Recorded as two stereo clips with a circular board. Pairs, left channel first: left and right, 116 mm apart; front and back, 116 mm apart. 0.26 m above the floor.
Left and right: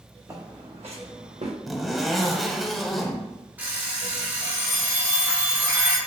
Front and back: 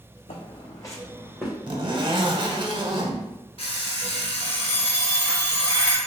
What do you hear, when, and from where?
0.3 s footsteps: 25° right, 1.2 m; by 1.5 s 95° right, 1.5 m
1.7 s a zipper: straight behind, 0.6 m
3.6 s an alarm clock: 20° right, 1.2 m